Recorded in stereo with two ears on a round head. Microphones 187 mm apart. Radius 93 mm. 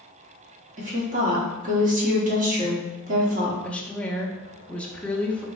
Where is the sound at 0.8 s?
35° right (ahead or behind), 1.3 m.